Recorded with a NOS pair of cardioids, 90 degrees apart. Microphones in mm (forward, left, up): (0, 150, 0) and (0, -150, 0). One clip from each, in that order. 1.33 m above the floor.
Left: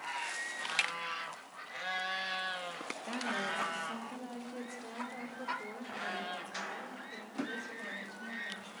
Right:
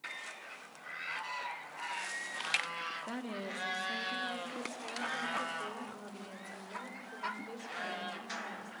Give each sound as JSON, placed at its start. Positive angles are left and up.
{"t": 3.1, "sound": "a woman speaking", "azimuth_deg": -10, "distance_m": 3.0}